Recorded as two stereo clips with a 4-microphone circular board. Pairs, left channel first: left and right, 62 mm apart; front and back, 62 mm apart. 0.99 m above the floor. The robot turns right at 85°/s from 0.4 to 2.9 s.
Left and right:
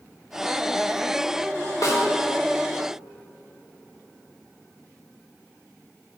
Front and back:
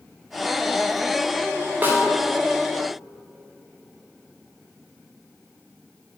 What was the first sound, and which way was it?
A snare drum, 120° left.